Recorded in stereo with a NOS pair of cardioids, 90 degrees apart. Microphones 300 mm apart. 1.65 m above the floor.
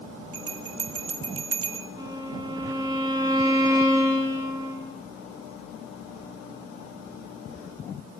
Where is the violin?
15° right, 4.5 m.